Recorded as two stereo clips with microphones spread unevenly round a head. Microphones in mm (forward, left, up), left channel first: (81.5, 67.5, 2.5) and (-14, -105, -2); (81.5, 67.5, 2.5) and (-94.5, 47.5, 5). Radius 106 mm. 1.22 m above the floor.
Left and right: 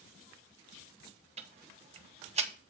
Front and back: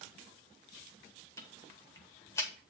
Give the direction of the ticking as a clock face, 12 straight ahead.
2 o'clock.